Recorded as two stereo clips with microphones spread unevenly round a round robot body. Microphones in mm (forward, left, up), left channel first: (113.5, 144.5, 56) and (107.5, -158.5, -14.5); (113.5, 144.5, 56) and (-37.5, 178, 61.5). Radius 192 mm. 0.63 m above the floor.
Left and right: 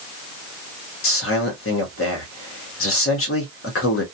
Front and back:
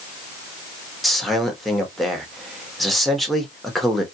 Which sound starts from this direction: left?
A man speaking, at 1.0 s.